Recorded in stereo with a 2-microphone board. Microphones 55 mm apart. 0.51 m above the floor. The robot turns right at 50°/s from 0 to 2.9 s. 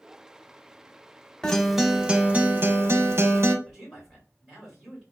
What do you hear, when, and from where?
1.4 s a guitar: 165° left, 0.6 m; by 3.5 s 120° right, 0.6 m
3.6 s a man speaking: 5° left (ahead or behind), 1.9 m